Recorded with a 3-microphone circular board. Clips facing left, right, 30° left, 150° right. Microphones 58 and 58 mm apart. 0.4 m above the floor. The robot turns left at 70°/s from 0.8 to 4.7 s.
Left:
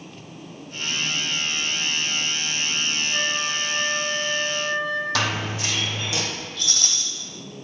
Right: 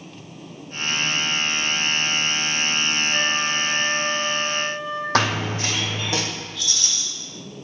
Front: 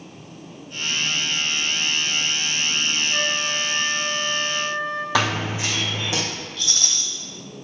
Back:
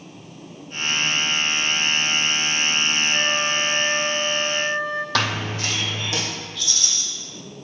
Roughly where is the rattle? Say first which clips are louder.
Even, front 1 dB; ahead left.